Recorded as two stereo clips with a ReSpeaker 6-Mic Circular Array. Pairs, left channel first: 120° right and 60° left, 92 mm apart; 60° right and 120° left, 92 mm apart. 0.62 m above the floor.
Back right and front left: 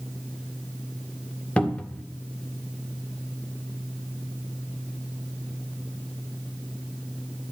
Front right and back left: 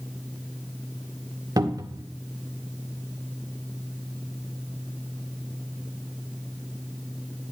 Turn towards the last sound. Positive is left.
turn(degrees=165)